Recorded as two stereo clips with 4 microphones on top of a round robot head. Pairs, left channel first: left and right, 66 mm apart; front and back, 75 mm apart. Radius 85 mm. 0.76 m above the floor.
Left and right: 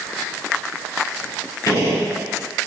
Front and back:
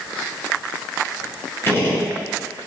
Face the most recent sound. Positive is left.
turn(degrees=55)